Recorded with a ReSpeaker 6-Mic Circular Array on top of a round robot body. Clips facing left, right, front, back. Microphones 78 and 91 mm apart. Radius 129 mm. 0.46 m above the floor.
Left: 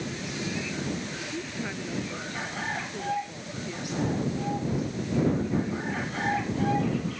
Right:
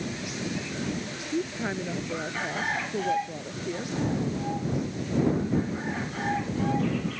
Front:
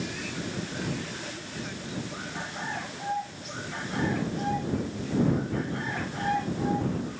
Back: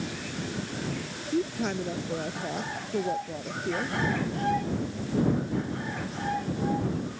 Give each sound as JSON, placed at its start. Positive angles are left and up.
{"t": 1.3, "sound": "a woman speaking", "azimuth_deg": -150}